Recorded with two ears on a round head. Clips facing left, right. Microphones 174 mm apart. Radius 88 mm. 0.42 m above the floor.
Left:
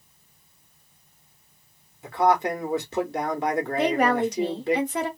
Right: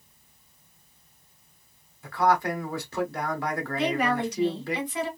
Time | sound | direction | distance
2.0 | a man speaking | 20° left (ahead or behind) | 0.8 m
3.8 | a woman speaking | 40° left (ahead or behind) | 0.9 m